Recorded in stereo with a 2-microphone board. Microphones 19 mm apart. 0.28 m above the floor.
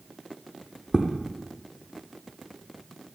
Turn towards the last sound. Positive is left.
turn(degrees=-25)  # may be behind; listen again after turning